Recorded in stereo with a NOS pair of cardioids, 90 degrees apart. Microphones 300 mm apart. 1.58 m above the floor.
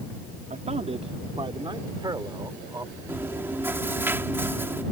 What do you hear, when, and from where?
0.5 s a man speaking: 25° right; by 3.0 s 10° right
3.1 s chewing: 10° right